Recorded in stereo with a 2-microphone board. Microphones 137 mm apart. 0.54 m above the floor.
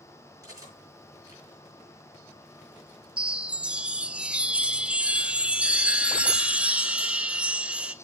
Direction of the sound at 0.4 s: 25° right (ahead or behind).